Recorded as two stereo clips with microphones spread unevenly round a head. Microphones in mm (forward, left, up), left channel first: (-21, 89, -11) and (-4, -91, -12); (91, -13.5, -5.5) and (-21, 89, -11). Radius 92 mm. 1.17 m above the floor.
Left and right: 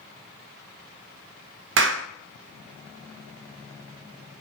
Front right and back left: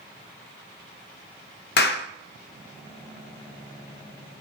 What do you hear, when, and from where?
1.8 s a clap: 60° right, 0.5 m